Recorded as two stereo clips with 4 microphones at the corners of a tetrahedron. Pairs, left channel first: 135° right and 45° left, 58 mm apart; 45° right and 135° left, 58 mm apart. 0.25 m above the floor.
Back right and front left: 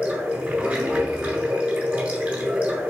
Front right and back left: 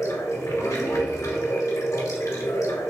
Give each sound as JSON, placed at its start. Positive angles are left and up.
{"t": 0.0, "sound": "running water", "azimuth_deg": -20, "distance_m": 1.5}